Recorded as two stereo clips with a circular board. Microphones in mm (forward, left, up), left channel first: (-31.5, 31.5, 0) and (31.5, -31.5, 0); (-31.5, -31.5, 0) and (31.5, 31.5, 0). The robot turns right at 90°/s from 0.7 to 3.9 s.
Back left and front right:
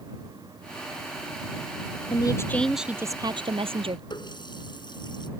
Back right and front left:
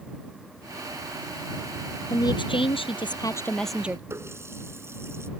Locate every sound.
2.1 s a woman speaking: 170° left; by 4.0 s 30° right
4.1 s a running tap: 105° left